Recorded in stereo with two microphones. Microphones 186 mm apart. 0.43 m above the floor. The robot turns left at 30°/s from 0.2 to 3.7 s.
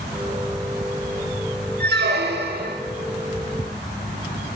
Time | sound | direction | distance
1.8 | a squeak | 70° right (ahead or behind) | 0.7 m